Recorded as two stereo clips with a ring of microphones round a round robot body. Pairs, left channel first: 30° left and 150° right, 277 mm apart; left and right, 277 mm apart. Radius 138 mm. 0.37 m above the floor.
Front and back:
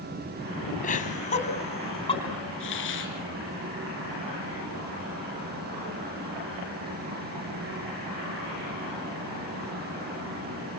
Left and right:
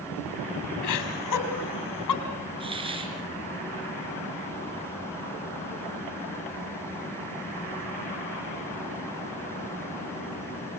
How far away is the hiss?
About 3.5 m.